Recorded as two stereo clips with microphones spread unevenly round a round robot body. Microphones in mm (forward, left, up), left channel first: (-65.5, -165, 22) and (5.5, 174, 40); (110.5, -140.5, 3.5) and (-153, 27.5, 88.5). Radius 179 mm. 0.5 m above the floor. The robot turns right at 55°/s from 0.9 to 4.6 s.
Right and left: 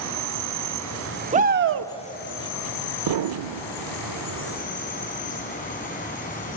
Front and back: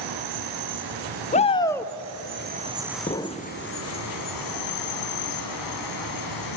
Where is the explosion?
40° left, 0.6 m; by 3.6 s 70° left, 0.6 m.